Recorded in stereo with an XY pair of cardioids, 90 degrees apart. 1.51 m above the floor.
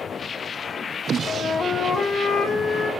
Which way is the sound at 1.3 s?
60° left.